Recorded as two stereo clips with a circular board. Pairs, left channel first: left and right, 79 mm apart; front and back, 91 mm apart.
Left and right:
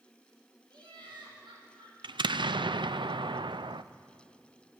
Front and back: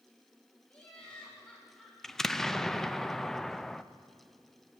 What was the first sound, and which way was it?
Laughter, 75° right.